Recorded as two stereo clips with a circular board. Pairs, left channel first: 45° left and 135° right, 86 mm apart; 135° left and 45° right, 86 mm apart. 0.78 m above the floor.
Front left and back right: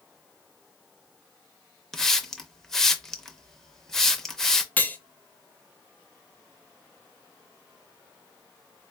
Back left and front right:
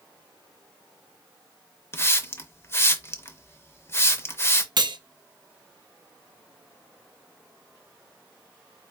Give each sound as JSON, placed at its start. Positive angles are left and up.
{"t": 1.9, "sound": "a hiss", "azimuth_deg": 125, "distance_m": 0.5}
{"t": 4.8, "sound": "cutlery clinking", "azimuth_deg": -25, "distance_m": 0.6}